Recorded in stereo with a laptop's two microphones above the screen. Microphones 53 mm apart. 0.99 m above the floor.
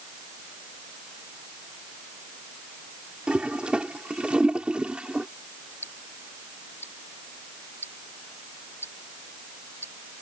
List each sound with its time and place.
3.3 s a toilet flushing: 20° right (ahead or behind)
5.8 s ticking: 50° left (ahead or behind)